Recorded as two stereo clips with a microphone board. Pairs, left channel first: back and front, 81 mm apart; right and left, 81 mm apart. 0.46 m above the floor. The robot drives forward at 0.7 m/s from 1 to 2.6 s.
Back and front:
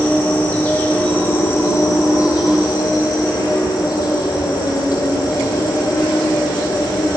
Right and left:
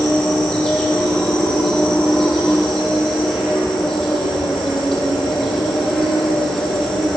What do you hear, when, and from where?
0.0 s an insect: 160° right, 1.2 m; by 7.2 s 175° right, 1.9 m